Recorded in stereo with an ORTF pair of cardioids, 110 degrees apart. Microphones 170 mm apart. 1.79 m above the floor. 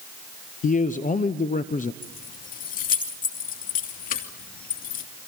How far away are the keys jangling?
About 3 m.